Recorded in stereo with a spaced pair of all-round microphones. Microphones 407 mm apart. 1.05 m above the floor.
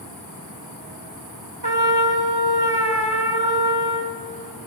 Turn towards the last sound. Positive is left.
turn(degrees=-70)  # may be behind; listen again after turning